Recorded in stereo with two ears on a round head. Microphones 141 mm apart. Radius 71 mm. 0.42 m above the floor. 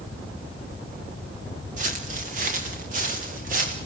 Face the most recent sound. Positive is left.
turn(degrees=-55)  # may be behind; listen again after turning